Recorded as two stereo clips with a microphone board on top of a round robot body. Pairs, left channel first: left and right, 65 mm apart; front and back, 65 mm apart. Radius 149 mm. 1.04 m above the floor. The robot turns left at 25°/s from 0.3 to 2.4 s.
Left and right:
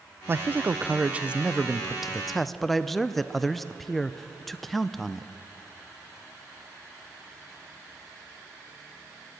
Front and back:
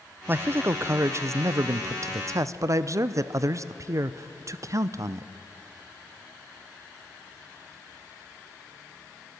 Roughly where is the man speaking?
Behind right.